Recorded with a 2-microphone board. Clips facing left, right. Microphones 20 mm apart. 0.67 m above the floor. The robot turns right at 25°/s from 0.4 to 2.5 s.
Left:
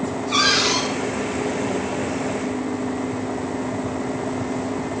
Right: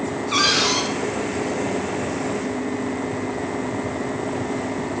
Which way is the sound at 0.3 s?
15° right (ahead or behind).